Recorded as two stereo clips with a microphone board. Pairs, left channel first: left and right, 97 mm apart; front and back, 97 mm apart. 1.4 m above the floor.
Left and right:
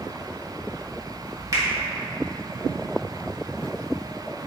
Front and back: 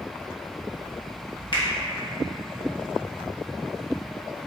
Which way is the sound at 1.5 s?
40° right.